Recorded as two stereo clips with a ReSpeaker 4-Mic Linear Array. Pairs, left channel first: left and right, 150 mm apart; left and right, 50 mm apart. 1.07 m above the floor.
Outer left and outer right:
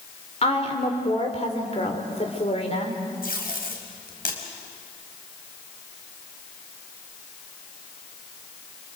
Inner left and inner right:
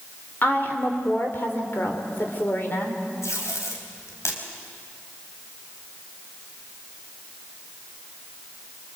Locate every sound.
0.4 s a woman speaking: 45° left (ahead or behind), 3.5 m
3.2 s tape being pulled: 85° left, 4 m